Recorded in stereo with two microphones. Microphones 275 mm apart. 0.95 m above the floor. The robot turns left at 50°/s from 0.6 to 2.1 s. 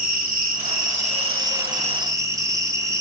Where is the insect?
95° right, 0.8 m; by 3.0 s 170° right, 0.8 m.